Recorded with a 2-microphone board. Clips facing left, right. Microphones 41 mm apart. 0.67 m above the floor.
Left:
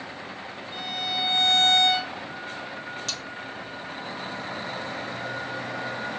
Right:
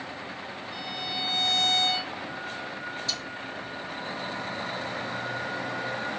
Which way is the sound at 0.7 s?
50° left (ahead or behind).